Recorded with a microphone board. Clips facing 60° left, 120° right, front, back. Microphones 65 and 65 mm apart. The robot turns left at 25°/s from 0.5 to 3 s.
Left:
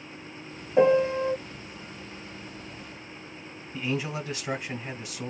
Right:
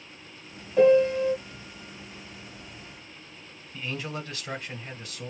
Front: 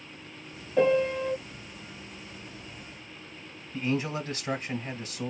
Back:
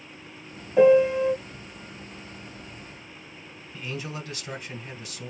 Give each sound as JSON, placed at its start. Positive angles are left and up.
{"t": 0.8, "sound": "a piano", "azimuth_deg": 110, "distance_m": 0.8}
{"t": 3.7, "sound": "a man speaking", "azimuth_deg": -5, "distance_m": 1.4}